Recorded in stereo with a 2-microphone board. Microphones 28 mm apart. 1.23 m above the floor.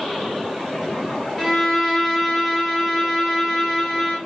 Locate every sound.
1.4 s a violin: 5° left (ahead or behind), 1.7 m